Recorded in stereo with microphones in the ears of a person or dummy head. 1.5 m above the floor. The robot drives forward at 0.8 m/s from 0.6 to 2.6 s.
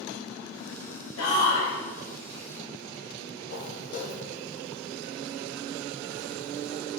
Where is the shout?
90° left, 1.8 m; by 1.7 s 75° left (ahead or behind), 1.8 m.